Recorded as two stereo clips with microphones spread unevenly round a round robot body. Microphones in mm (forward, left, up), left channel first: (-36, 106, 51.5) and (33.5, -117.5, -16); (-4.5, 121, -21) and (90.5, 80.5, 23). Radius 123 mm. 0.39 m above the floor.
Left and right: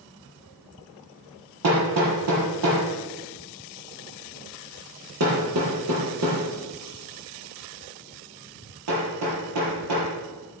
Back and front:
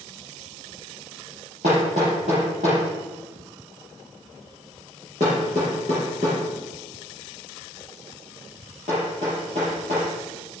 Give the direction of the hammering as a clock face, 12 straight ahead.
3 o'clock.